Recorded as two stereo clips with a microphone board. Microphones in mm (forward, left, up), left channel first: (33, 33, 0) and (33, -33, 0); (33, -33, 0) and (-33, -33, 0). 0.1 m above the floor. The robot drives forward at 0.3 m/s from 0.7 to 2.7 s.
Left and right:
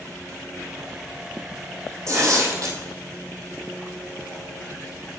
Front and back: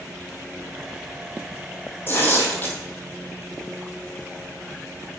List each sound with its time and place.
2.1 s tearing paper: 55° right, 2 m; by 2.8 s 60° right, 1.9 m